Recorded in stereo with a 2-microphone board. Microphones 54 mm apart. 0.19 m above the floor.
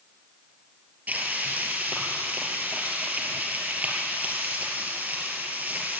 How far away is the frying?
About 3.5 m.